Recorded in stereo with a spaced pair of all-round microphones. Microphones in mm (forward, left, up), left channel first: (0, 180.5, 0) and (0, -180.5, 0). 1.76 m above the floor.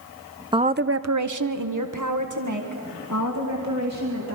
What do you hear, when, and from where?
0.5 s a woman speaking: 15° right (ahead or behind), 0.6 m; by 4.4 s 45° right (ahead or behind), 3 m